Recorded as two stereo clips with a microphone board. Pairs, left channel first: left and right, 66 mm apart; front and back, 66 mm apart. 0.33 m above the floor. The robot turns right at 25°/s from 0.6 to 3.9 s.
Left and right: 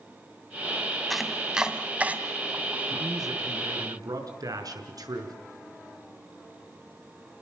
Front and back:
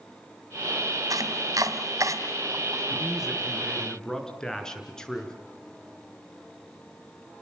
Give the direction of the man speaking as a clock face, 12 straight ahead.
4 o'clock.